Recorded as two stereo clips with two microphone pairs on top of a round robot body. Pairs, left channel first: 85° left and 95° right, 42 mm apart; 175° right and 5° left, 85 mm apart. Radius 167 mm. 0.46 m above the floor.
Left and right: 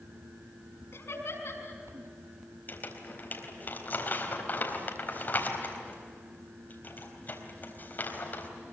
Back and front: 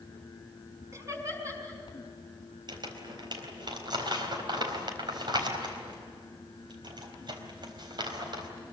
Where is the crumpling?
40° left, 4 m.